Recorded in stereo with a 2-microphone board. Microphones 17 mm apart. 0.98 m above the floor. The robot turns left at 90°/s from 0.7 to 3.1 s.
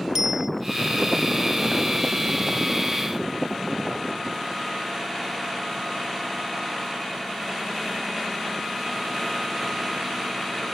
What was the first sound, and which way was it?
A bicycle bell, 50° right (ahead or behind).